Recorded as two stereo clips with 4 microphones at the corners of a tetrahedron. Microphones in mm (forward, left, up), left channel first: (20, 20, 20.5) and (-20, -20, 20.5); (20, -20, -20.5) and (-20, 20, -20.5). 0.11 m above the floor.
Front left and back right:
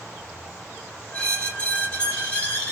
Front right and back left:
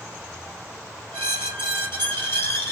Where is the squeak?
15° right, 1.6 m.